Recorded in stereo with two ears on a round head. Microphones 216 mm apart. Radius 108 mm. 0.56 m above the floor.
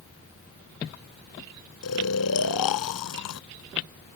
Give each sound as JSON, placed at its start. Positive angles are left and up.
{"t": 1.8, "sound": "snoring", "side_deg": 70}